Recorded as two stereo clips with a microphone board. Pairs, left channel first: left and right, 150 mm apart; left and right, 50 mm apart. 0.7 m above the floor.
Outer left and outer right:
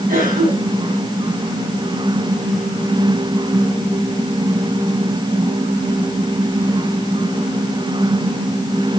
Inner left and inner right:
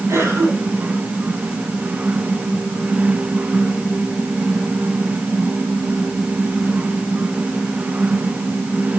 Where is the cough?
65° right (ahead or behind), 6.5 m.